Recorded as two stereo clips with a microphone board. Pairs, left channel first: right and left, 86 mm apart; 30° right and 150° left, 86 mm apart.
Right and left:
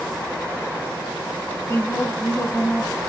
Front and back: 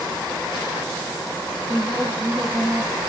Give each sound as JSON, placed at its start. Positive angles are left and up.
{"t": 1.7, "sound": "a woman speaking", "azimuth_deg": -155, "distance_m": 5.5}